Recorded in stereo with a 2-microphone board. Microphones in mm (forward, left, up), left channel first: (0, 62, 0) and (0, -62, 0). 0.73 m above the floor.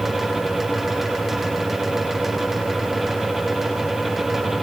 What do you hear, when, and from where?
Only background noise.